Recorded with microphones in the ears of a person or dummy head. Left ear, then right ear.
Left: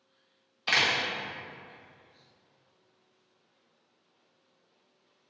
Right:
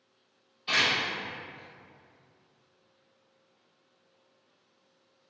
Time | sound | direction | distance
0.7 | a door slam | 45° left (ahead or behind) | 0.8 m